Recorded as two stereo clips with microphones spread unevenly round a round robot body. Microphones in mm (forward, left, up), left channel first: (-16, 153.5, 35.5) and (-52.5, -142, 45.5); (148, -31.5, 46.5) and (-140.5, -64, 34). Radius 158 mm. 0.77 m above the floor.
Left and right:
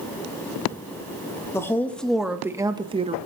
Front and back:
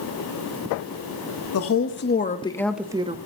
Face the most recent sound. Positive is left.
turn(degrees=-145)